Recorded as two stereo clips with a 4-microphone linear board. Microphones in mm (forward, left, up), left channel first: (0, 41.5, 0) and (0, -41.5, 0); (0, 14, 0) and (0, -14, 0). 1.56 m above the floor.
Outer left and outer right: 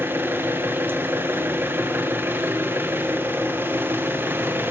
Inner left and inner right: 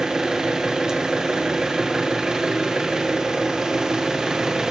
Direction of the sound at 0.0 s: 25° right (ahead or behind).